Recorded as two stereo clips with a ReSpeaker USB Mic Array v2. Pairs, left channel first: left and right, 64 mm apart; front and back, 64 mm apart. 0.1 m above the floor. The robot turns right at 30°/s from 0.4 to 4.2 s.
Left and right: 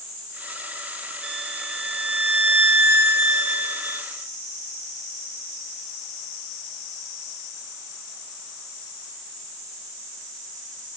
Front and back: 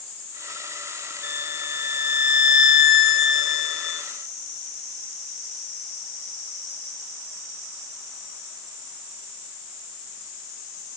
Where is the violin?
155° right, 1.7 m; by 4.1 s 70° right, 1.7 m.